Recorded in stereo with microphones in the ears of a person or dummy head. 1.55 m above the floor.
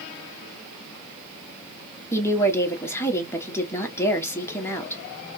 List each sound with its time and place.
2.1 s a woman speaking: 10° left (ahead or behind), 1.0 m